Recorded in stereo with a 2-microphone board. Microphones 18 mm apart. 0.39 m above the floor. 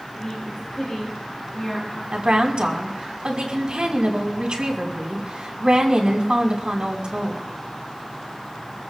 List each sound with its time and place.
0.1 s a woman speaking: 40° left (ahead or behind), 5 m
2.1 s a woman speaking: 65° right (ahead or behind), 3 m